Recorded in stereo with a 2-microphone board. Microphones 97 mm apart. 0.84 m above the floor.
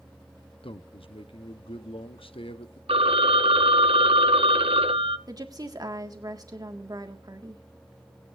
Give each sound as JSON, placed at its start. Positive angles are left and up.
{"t": 0.6, "sound": "a man speaking", "side_deg": 70, "distance_m": 1.0}
{"t": 2.9, "sound": "a phone ringing", "side_deg": -80, "distance_m": 1.0}
{"t": 5.3, "sound": "a woman speaking", "side_deg": -40, "distance_m": 1.7}